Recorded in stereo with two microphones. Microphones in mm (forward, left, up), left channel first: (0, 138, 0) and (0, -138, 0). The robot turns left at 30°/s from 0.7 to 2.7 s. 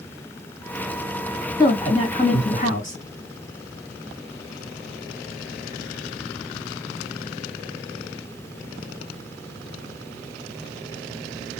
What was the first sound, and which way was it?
A woman speaking, 160° left.